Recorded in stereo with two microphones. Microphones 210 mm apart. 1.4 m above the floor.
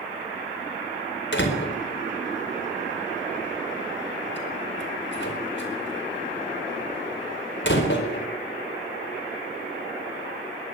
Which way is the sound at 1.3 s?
60° left (ahead or behind).